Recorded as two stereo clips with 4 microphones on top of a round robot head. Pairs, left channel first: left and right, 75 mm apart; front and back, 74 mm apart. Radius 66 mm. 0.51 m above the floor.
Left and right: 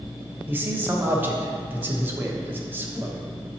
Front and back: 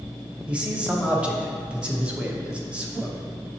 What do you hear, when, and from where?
0.5 s a man speaking: 120° right, 1.0 m